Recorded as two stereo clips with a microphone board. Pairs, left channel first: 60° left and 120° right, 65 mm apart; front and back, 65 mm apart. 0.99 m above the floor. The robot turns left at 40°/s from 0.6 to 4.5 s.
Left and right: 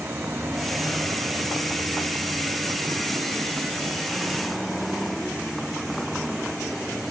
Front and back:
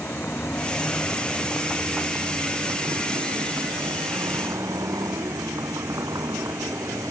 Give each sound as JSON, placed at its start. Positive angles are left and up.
{"t": 0.0, "sound": "a vehicle", "azimuth_deg": -60}